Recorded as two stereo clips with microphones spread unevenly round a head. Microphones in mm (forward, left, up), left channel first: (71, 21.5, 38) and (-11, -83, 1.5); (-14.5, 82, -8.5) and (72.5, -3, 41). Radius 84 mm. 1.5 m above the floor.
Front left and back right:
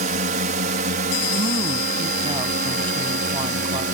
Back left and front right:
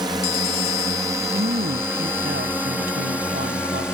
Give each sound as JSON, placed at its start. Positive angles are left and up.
{"t": 0.0, "sound": "a drone", "azimuth_deg": -115}
{"t": 1.3, "sound": "a woman speaking", "azimuth_deg": -75}